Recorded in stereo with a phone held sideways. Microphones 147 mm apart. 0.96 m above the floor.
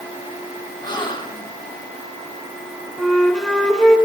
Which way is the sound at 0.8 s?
30° left (ahead or behind).